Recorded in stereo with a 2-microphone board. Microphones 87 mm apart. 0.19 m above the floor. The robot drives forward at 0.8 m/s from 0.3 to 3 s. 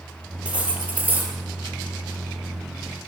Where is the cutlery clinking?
15° right (ahead or behind), 2.5 m; by 1.3 s 20° right (ahead or behind), 1.9 m.